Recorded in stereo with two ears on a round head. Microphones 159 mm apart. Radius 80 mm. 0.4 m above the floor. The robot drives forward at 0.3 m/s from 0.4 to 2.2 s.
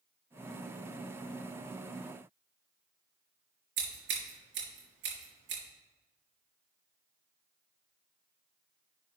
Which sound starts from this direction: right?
Scissors, at 3.8 s.